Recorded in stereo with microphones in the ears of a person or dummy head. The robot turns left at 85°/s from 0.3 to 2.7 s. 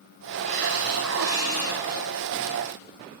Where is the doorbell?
I don't hear a doorbell.